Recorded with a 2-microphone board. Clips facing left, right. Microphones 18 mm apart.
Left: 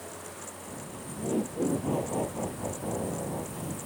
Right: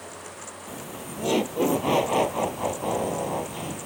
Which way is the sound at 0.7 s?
70° right (ahead or behind).